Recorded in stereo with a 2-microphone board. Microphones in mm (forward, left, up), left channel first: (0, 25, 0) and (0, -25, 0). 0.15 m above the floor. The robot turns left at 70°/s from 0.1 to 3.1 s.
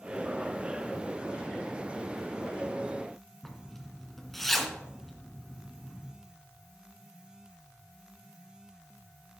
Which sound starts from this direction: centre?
A zipper, at 3.4 s.